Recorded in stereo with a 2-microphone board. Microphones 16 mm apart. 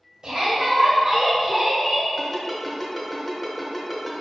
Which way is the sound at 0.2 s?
55° right (ahead or behind).